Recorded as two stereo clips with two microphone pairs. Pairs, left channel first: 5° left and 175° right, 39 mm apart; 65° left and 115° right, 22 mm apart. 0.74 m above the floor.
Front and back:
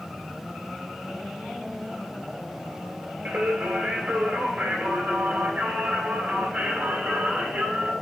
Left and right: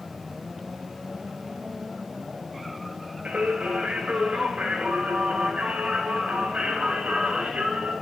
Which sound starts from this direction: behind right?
Singing, at 3.2 s.